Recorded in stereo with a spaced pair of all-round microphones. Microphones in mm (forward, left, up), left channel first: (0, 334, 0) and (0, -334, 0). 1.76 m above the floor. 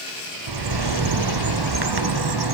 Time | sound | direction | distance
0.5 | a bird | 40° right (ahead or behind) | 0.6 m